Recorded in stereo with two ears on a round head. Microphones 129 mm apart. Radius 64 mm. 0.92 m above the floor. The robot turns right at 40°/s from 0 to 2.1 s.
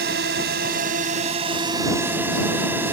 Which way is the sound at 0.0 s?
100° right.